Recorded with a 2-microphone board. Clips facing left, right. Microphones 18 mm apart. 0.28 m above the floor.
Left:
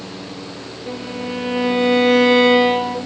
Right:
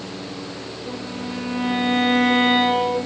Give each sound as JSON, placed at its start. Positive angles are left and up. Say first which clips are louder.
{"t": 0.9, "sound": "a violin", "louder": "left 5 dB", "side_deg": 60, "distance_m": 3.0}